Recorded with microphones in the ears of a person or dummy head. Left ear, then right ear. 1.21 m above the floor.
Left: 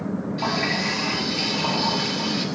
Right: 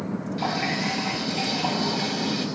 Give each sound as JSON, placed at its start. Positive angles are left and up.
{"t": 0.4, "sound": "a running tap", "side_deg": -15, "distance_m": 5.0}